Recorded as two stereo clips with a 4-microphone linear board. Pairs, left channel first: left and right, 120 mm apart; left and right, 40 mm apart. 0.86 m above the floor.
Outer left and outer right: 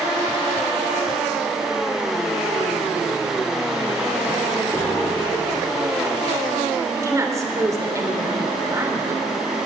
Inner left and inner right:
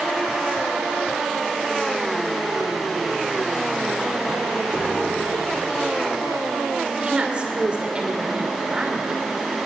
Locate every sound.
4.7 s a piano: 5° left (ahead or behind), 2.5 m
6.9 s a woman speaking: 30° right (ahead or behind), 2.5 m